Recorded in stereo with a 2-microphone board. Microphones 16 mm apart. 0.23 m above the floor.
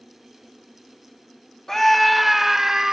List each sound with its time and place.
1.7 s a scream: 25° left (ahead or behind), 1.1 m; by 2.9 s 40° right (ahead or behind), 1.4 m